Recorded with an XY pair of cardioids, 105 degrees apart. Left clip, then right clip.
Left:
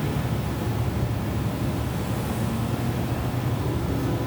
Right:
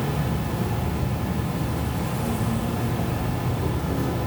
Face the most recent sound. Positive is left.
turn(degrees=-20)